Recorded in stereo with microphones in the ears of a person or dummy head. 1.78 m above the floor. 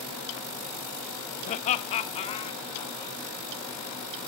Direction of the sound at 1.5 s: 45° left (ahead or behind).